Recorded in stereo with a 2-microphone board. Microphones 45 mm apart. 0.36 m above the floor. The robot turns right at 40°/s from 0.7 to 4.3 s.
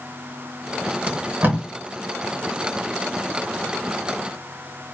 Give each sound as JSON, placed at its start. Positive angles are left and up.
{"t": 1.1, "sound": "tape being pulled", "side_deg": -40, "distance_m": 0.9}